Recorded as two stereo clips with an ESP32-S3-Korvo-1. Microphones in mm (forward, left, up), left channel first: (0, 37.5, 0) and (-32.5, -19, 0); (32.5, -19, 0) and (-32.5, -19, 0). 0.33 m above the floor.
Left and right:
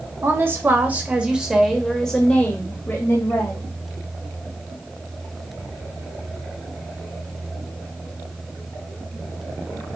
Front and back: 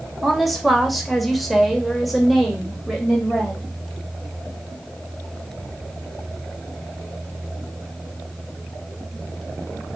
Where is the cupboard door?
I don't hear a cupboard door.